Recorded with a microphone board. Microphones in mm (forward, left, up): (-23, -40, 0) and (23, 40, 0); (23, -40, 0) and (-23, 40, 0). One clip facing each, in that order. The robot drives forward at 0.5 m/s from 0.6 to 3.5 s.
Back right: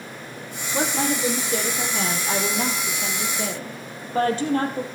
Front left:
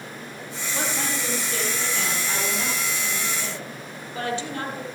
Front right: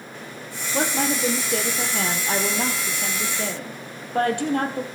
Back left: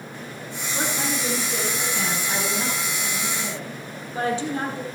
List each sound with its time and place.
0.7 s a woman speaking: 55° right, 3.5 m; by 4.8 s 80° right, 3 m